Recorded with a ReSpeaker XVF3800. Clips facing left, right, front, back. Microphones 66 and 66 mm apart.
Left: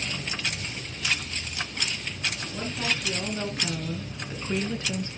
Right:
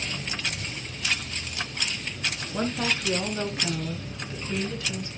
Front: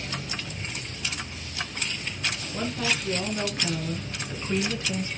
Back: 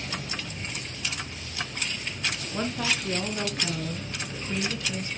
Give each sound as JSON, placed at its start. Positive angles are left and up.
{"t": 2.5, "sound": "a woman speaking", "azimuth_deg": -120, "distance_m": 1.8}